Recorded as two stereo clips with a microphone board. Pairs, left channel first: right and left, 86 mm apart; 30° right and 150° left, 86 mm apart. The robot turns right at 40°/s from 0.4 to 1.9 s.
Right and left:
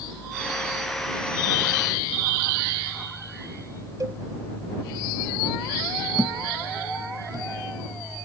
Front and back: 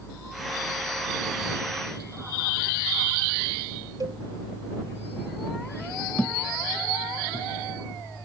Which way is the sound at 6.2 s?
45° left.